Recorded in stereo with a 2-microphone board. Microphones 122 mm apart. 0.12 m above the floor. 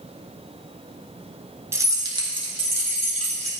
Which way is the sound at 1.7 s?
20° right (ahead or behind).